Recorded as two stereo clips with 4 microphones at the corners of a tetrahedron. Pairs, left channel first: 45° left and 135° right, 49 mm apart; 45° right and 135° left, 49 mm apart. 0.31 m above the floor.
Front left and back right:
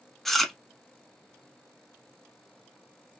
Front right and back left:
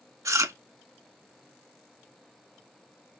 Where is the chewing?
130° left, 0.5 m.